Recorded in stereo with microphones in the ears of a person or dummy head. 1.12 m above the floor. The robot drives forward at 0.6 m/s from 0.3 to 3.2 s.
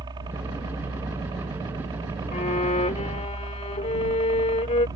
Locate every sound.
0.0 s a helicopter: 20° right (ahead or behind)
2.3 s a violin: 35° left (ahead or behind); by 4.9 s 30° left (ahead or behind)